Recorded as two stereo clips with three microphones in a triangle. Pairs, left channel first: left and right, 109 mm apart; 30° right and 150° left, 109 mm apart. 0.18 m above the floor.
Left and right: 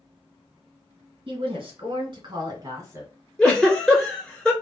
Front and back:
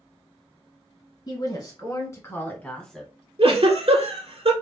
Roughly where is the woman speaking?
Right.